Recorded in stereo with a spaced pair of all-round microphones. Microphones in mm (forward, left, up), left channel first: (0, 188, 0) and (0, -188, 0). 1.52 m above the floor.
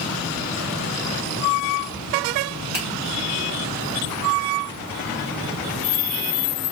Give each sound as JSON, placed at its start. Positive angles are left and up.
{"t": 2.7, "sound": "a finger snap", "side_deg": -45, "distance_m": 1.2}